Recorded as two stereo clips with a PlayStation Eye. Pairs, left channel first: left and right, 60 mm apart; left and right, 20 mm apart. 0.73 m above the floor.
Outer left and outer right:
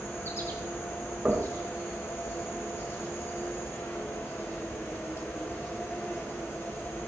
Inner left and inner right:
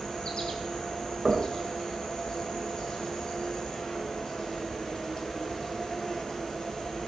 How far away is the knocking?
About 1.8 m.